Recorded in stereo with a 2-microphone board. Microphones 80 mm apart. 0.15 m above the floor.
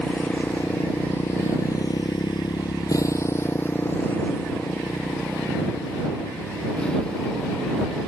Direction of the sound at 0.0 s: 15° left (ahead or behind).